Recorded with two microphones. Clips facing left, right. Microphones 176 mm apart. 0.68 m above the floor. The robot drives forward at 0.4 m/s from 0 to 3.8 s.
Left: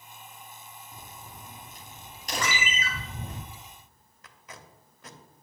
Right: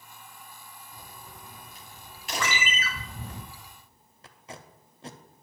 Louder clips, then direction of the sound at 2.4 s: Right 1 dB; 40° left (ahead or behind).